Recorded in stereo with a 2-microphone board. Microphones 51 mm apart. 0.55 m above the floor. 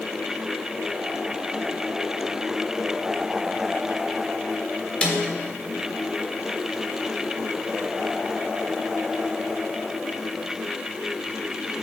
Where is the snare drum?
20° left (ahead or behind), 1.3 m.